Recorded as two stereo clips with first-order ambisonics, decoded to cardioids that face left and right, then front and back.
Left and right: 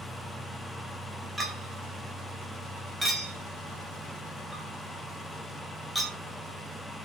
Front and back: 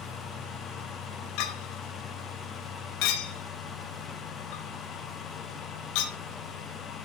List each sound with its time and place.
1.4 s a clink: 5° right, 1.3 m